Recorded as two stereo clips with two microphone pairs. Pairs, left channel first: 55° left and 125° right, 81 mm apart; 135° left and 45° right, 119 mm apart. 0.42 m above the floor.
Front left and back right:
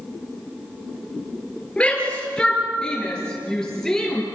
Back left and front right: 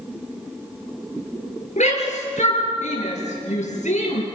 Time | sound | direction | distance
1.8 | a shout | 130° left | 8 m